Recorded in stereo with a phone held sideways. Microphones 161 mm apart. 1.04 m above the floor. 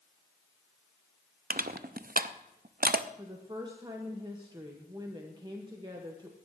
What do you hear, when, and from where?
1.5 s crushing: 65° right (ahead or behind), 0.6 m
3.2 s a woman speaking: 30° right (ahead or behind), 1.2 m